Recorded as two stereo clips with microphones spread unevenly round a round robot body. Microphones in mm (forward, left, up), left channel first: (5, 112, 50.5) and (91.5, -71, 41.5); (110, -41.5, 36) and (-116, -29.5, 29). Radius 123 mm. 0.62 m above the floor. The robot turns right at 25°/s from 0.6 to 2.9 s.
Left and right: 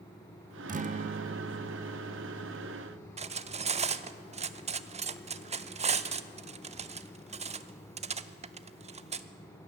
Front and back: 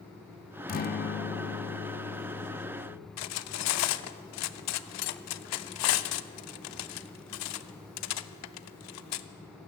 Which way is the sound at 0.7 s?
40° right.